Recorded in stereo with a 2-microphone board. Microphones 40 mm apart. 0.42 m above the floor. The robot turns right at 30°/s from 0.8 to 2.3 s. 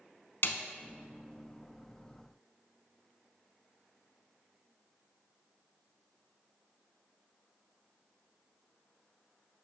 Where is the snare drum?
60° left (ahead or behind), 0.6 m.